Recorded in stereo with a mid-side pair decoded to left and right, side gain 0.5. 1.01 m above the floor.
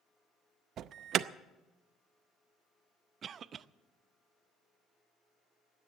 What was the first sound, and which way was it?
An alarm, 60° right.